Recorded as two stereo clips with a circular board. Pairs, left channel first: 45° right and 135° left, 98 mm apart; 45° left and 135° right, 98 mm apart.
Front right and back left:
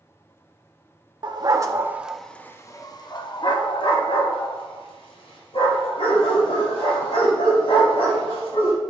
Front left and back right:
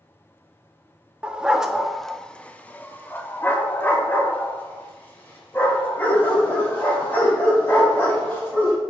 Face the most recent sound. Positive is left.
turn(degrees=-25)